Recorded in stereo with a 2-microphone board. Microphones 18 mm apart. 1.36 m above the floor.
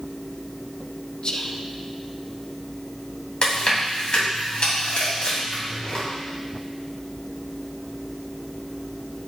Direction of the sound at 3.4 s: 65° left (ahead or behind).